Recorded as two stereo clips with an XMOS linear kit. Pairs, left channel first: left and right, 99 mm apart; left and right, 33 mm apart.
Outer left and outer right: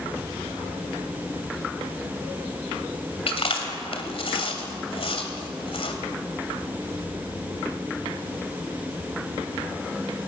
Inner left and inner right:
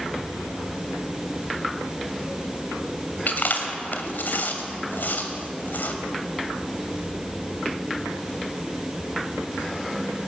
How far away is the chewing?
About 2.5 m.